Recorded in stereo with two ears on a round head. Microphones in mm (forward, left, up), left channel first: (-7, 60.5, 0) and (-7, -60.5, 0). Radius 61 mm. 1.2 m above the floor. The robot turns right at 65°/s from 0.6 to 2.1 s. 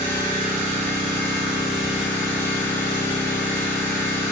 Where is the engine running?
80° right, 0.7 m; by 4.3 s 20° left, 0.7 m.